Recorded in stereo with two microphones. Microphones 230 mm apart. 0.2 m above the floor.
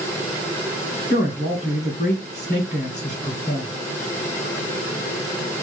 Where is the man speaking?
30° left (ahead or behind), 1.5 m.